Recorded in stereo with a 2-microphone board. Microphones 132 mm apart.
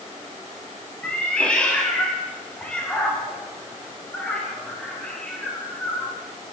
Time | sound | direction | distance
1.0 | a cat meowing | 10° left (ahead or behind) | 8.5 m